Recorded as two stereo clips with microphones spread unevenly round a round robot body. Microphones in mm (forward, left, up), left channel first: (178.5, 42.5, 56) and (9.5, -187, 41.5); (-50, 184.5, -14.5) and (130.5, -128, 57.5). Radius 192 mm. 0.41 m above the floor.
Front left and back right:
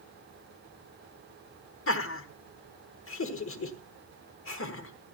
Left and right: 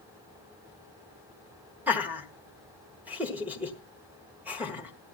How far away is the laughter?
About 1.4 m.